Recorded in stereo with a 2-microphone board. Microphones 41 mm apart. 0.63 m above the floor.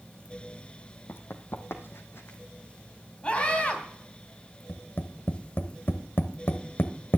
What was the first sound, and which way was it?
Running footsteps, 65° left (ahead or behind).